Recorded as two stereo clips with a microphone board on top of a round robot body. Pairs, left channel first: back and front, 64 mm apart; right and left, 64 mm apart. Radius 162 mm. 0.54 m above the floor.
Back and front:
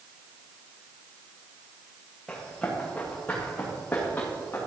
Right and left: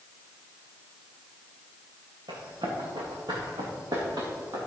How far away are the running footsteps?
About 4 m.